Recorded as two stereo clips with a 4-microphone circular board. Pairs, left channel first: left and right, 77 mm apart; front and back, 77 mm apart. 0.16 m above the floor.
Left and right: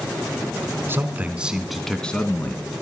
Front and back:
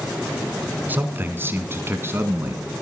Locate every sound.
0.9 s a man speaking: 130° right, 1.4 m; by 2.8 s 130° left, 1.6 m